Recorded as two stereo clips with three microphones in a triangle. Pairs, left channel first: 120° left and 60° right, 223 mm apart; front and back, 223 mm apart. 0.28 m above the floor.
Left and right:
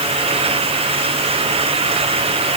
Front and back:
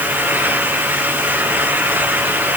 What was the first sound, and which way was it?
Only background noise.